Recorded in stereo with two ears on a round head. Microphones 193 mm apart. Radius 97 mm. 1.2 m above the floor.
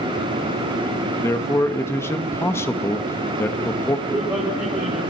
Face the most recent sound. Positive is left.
turn(degrees=-10)  # may be behind; listen again after turning